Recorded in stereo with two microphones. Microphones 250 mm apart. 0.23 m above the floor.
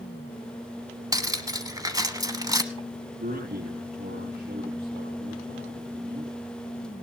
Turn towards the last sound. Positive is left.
turn(degrees=-45)  # may be behind; listen again after turning